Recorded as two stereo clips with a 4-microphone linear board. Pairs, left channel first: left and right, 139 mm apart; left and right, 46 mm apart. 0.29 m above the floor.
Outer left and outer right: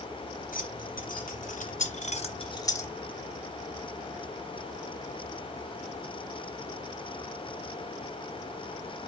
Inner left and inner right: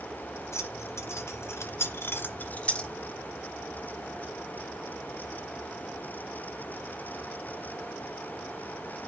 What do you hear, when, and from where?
0.5 s keys jangling: 75° left (ahead or behind), 3 m; by 2.9 s 15° left (ahead or behind), 1.3 m